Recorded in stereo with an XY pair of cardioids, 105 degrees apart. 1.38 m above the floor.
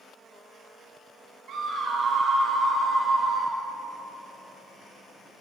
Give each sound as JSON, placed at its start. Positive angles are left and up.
{"t": 1.5, "sound": "a scream", "azimuth_deg": -70, "distance_m": 1.1}